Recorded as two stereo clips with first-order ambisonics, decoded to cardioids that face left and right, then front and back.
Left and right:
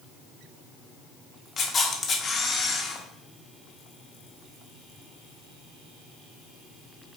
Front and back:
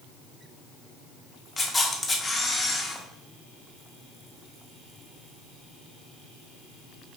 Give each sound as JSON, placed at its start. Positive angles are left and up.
{"t": 1.6, "sound": "a camera shutter", "azimuth_deg": 70, "distance_m": 0.5}